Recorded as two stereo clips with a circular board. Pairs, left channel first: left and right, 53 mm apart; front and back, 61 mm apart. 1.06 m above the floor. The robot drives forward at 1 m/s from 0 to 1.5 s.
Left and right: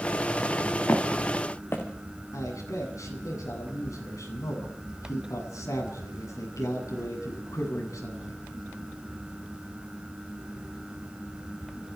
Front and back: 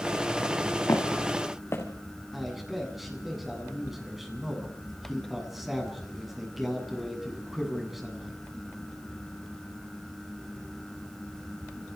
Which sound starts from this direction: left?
A man speaking, at 2.3 s.